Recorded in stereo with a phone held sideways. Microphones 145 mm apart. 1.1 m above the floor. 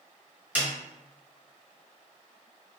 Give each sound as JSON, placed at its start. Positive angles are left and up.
{"t": 0.6, "sound": "a snare drum", "side_deg": -10, "distance_m": 1.3}